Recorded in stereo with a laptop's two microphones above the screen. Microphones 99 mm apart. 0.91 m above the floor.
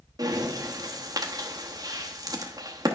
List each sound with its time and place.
0.2 s breathing: 40° right (ahead or behind), 0.9 m